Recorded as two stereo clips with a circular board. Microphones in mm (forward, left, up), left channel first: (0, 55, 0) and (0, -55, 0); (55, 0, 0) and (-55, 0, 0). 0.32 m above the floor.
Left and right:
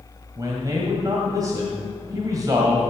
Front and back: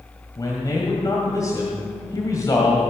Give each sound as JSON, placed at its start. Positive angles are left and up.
{"t": 0.4, "sound": "a man speaking", "azimuth_deg": -50, "distance_m": 1.7}